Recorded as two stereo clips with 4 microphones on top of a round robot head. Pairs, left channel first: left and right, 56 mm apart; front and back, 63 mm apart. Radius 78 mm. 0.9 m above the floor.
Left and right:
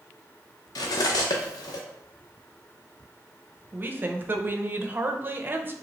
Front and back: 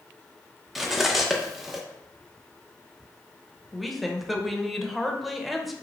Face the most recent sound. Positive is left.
turn(degrees=-95)